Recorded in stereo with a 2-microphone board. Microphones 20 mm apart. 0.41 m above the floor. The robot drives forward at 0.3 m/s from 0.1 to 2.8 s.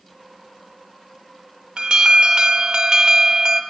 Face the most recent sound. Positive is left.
turn(degrees=-35)  # may be behind; listen again after turning